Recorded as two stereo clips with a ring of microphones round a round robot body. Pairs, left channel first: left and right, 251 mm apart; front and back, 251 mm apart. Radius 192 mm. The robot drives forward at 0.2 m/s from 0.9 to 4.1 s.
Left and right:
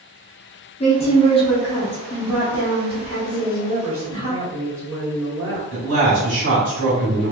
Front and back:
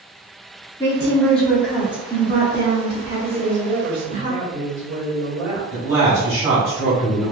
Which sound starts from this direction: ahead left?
A woman speaking, at 0.8 s.